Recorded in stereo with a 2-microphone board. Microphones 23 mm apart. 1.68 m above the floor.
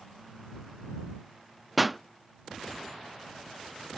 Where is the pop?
5° right (ahead or behind).